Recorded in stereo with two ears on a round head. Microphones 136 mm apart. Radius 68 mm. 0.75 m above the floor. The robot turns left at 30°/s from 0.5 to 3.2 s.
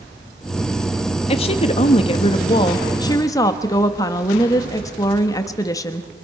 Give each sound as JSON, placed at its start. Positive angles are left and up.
{"t": 1.3, "sound": "a woman speaking", "azimuth_deg": 95, "distance_m": 1.1}